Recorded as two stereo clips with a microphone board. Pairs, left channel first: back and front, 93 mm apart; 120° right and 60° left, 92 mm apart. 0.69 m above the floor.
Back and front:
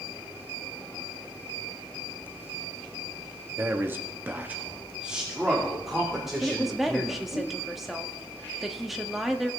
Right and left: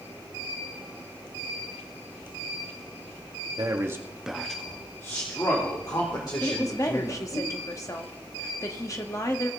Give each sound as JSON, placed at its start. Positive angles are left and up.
{"t": 3.6, "sound": "a man speaking", "azimuth_deg": 55, "distance_m": 1.3}
{"t": 6.4, "sound": "a woman speaking", "azimuth_deg": -85, "distance_m": 1.1}